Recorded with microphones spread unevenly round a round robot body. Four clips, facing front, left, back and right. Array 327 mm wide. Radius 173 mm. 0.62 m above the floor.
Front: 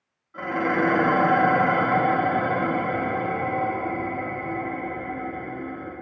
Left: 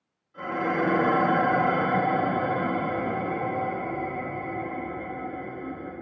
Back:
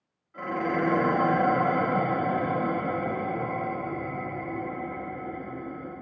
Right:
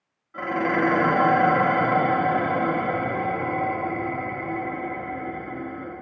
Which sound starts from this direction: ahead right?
Dishes clattering, at 0.3 s.